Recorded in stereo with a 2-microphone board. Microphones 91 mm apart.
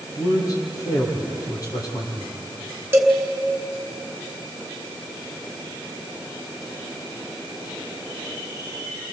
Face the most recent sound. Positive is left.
turn(degrees=-20)  # may be behind; listen again after turning